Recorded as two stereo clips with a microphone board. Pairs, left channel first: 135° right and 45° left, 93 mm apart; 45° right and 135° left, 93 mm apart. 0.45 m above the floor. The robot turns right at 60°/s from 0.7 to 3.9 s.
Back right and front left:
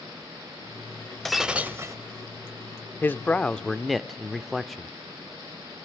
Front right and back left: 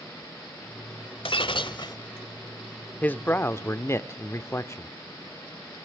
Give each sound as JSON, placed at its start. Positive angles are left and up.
{"t": 1.2, "sound": "breaking glass", "azimuth_deg": -50, "distance_m": 1.3}
{"t": 3.0, "sound": "a man speaking", "azimuth_deg": -100, "distance_m": 0.8}